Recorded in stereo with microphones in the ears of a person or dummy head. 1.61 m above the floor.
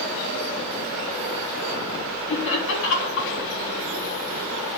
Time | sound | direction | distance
2.3 | laughter | 75° left (ahead or behind) | 5.5 m